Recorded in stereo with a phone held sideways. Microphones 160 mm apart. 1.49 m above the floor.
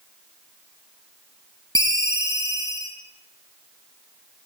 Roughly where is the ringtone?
Right.